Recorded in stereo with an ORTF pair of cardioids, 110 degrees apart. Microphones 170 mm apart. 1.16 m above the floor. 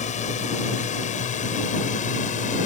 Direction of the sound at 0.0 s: 45° left.